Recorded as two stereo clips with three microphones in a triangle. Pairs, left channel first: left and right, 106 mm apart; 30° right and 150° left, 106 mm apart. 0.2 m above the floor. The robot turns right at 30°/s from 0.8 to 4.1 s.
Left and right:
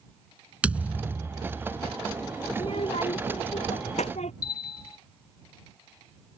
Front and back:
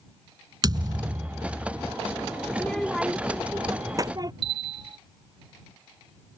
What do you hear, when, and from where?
0.6 s a thud: 165° right; by 1.9 s 135° right
2.5 s a child speaking: 45° left; by 4.3 s 95° left
4.4 s a bell: 135° left